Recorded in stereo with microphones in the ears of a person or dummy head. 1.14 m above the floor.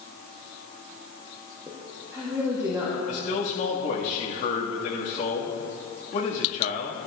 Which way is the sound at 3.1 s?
35° left (ahead or behind).